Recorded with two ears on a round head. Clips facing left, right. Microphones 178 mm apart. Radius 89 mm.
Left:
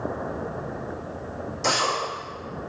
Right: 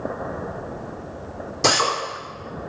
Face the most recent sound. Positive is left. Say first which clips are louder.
# right 5 dB
turn(degrees=-75)  # may be behind; listen again after turning